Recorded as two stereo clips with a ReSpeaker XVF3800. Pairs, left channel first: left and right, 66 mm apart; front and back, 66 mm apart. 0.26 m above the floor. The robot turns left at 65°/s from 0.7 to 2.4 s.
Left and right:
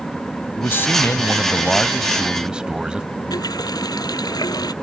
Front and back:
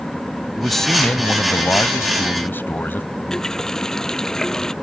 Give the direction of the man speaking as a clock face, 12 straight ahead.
9 o'clock.